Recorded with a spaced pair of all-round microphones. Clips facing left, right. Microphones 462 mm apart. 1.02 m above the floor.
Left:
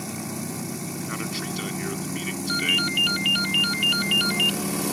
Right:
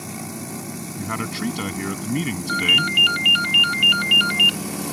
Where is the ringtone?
70° right (ahead or behind).